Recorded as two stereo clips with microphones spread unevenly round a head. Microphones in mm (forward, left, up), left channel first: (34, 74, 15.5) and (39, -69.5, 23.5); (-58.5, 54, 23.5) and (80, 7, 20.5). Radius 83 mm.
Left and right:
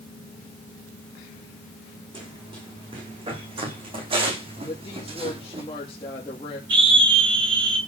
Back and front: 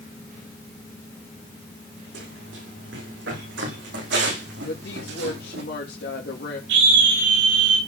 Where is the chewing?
I don't hear chewing.